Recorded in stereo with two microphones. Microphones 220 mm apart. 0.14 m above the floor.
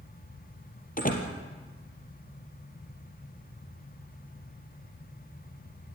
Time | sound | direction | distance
1.0 | a door slam | 40° left (ahead or behind) | 3 m